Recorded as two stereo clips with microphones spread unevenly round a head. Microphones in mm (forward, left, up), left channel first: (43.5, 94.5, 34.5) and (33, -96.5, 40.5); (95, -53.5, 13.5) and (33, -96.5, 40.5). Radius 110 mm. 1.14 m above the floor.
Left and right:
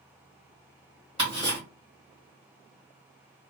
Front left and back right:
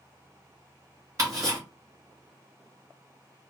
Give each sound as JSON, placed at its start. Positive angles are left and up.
{"t": 1.2, "sound": "ticking", "azimuth_deg": -155, "distance_m": 1.2}